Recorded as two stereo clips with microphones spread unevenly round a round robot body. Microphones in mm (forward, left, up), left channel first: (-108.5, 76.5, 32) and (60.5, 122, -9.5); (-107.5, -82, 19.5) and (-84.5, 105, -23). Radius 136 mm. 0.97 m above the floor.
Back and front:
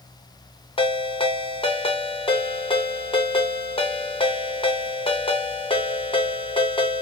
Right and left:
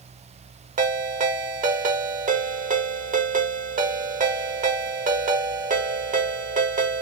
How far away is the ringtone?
About 0.8 m.